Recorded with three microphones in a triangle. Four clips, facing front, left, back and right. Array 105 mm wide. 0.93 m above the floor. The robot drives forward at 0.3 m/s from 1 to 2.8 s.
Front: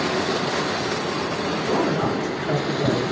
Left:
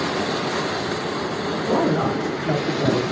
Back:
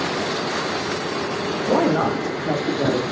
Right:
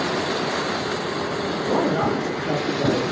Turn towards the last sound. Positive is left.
turn(degrees=180)